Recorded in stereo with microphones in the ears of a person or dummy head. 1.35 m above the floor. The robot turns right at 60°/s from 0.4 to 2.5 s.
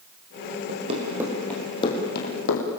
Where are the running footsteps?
50° right (ahead or behind), 5 m; by 2.8 s 75° left (ahead or behind), 4.5 m.